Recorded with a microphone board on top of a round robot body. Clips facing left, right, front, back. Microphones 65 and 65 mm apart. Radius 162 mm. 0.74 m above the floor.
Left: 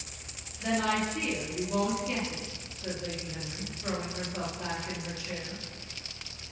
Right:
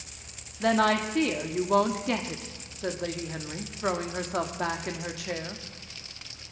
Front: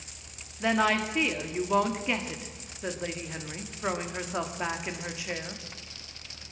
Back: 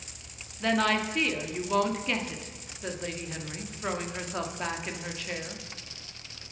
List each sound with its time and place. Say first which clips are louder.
0.6 s a woman speaking: right 5 dB, front 1 dB; 75° right, 1.9 m